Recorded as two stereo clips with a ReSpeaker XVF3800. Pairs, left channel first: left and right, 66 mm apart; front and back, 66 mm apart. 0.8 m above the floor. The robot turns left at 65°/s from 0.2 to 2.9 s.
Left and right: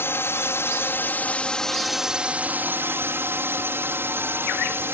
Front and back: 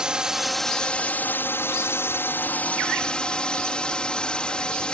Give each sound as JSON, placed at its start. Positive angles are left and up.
{"t": 0.0, "sound": "a drone", "azimuth_deg": 110}